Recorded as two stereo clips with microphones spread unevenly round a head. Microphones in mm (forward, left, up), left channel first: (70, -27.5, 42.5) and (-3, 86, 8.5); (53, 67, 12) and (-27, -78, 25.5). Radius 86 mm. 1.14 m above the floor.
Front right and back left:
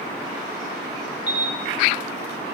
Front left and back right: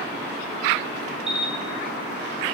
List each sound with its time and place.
1.3 s a camera shutter: 155° left, 2 m